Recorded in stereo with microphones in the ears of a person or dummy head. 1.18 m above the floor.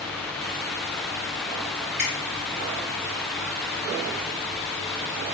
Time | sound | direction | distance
2.0 | a finger snap | 5° left (ahead or behind) | 1.5 m